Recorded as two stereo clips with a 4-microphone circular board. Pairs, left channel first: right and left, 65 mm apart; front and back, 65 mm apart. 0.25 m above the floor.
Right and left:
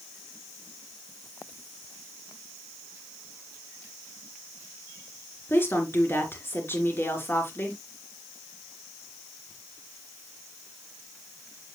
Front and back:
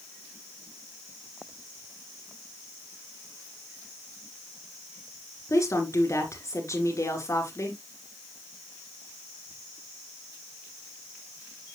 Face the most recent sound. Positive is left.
turn(degrees=-40)